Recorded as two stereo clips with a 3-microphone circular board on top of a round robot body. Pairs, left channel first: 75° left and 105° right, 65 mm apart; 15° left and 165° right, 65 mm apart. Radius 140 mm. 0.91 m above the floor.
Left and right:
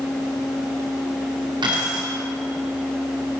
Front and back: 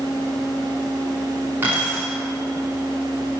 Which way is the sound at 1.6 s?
100° right.